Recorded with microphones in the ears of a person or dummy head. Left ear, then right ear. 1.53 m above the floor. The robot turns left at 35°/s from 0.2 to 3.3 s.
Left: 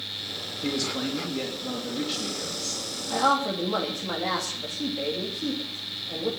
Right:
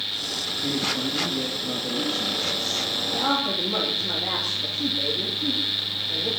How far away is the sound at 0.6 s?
About 3.5 m.